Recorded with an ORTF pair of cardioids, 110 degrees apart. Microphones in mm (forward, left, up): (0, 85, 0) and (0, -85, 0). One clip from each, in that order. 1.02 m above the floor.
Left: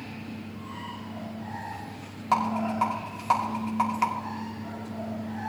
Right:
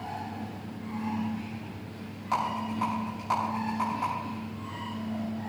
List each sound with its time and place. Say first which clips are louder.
2.3 s a rattle: left 4 dB; 40° left, 6 m